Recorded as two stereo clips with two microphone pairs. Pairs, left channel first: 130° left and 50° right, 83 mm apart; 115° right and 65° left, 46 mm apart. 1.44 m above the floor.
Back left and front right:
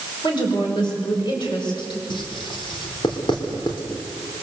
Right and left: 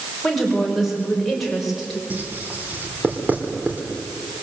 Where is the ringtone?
I don't hear a ringtone.